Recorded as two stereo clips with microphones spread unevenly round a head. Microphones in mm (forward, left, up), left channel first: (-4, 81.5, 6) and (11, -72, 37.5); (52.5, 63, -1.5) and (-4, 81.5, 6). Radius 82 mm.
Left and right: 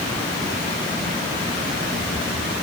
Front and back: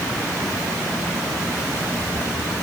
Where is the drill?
I don't hear a drill.